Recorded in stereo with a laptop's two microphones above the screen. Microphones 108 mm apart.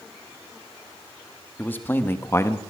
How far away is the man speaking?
About 1.4 m.